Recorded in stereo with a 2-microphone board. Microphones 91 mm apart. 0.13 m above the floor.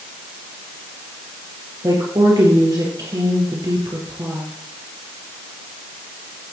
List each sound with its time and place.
1.8 s a woman speaking: 45° right (ahead or behind), 3 m